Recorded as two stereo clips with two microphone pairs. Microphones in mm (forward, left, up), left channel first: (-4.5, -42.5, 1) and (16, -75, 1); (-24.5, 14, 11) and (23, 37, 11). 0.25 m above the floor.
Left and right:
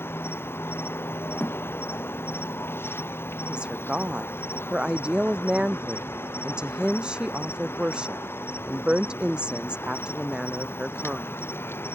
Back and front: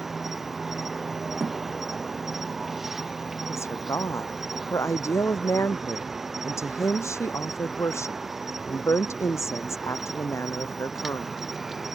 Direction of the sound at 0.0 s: 115° left.